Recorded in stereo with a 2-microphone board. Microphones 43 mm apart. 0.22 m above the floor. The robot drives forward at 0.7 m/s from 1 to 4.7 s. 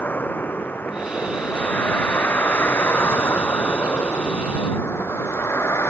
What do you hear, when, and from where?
0.0 s a vehicle: 45° left (ahead or behind); by 5.9 s 75° left (ahead or behind)